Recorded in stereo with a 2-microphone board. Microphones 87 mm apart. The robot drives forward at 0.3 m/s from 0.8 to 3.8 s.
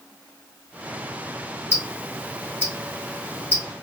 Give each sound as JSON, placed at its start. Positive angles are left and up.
{"t": 1.7, "sound": "ticking", "side_deg": 30, "distance_m": 1.1}